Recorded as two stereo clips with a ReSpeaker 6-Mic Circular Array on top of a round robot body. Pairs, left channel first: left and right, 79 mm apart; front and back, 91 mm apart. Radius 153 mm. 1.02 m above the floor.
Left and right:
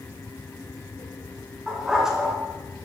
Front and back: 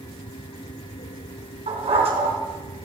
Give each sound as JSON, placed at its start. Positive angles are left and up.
{"t": 1.7, "sound": "a dog barking", "azimuth_deg": -175, "distance_m": 3.0}